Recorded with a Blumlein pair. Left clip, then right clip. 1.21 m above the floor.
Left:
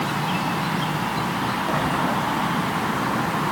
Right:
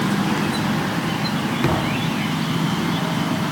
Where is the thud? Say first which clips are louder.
Right 1 dB; 45° right, 8.5 m.